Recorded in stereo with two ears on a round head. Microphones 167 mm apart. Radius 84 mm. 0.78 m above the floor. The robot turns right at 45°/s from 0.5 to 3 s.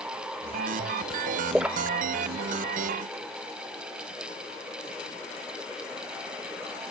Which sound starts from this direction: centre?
A splash, at 1.5 s.